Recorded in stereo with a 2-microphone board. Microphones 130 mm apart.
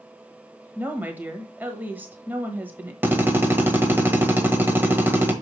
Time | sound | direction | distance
0.8 | a woman speaking | 15° right (ahead or behind) | 1.2 m
3.0 | a drill | 15° right (ahead or behind) | 1.2 m